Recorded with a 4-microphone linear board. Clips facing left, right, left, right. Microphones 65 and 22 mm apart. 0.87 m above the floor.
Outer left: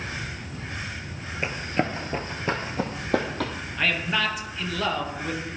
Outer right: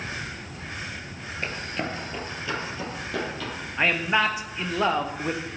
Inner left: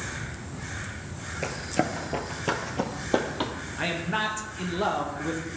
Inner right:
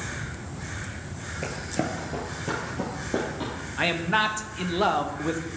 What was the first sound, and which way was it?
Running footsteps, 15° left (ahead or behind).